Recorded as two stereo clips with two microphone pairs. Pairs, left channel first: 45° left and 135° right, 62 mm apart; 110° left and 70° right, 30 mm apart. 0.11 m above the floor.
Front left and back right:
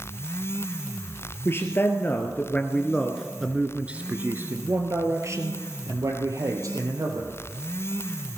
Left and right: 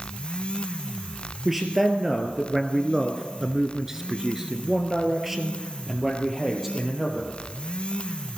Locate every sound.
1.4 s a man speaking: 10° left, 2 m; by 7.3 s 155° right, 3.5 m